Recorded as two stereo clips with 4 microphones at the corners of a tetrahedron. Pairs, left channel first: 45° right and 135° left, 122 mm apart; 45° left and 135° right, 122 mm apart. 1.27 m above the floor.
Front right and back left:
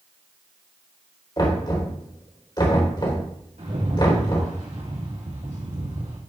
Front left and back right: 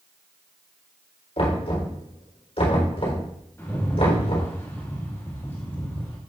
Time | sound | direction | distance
1.4 | knocking | 10° left | 3.5 m
3.6 | a rattle | 115° left | 2.5 m